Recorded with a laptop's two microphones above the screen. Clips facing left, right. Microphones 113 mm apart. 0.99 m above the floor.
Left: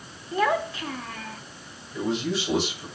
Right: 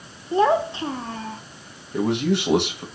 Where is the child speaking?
30° right (ahead or behind), 0.7 m.